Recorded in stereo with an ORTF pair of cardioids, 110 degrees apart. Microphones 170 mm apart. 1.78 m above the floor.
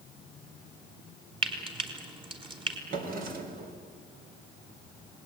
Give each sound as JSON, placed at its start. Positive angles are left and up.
{"t": 1.4, "sound": "frying", "azimuth_deg": -30, "distance_m": 5.0}
{"t": 2.9, "sound": "a drawer", "azimuth_deg": -60, "distance_m": 4.0}